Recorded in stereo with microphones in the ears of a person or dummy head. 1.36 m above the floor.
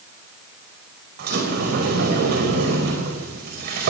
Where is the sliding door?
55° right (ahead or behind), 4.5 m.